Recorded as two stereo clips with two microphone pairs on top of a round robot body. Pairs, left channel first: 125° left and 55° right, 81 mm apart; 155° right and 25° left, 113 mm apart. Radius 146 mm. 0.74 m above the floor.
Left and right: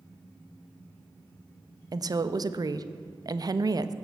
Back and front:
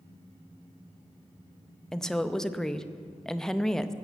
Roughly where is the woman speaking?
Right.